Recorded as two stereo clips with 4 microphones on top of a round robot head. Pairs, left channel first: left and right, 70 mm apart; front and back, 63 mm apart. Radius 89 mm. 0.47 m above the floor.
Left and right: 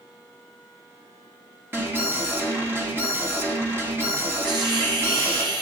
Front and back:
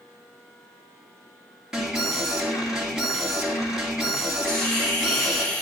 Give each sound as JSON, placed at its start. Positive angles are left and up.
{"t": 1.7, "sound": "an alarm", "azimuth_deg": -105, "distance_m": 2.5}
{"t": 4.5, "sound": "a hiss", "azimuth_deg": -75, "distance_m": 1.3}